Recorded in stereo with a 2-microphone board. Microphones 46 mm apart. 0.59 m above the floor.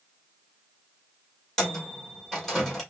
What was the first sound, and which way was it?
A microwave, 10° left (ahead or behind).